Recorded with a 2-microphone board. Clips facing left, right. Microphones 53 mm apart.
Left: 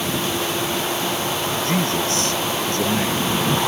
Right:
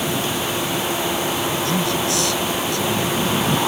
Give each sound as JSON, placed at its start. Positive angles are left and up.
{"t": 1.6, "sound": "a man speaking", "side_deg": 35}